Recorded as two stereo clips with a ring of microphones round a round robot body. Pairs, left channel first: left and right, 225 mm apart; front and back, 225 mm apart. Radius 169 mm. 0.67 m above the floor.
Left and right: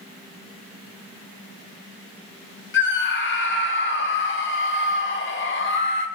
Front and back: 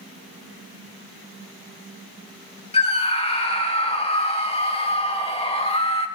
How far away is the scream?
About 2.5 m.